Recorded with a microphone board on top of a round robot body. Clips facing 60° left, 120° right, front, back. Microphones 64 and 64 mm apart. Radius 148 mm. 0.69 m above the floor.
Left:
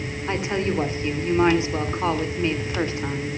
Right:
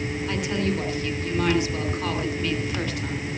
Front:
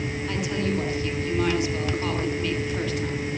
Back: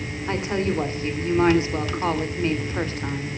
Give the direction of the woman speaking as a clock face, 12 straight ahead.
8 o'clock.